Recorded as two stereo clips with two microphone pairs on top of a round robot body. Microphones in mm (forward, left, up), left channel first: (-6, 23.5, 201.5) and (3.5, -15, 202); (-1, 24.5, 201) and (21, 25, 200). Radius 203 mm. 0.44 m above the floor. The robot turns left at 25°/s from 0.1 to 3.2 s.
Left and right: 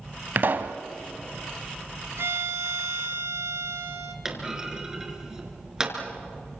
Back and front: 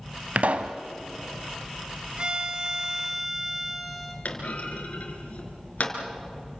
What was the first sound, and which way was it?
A pop, 30° right.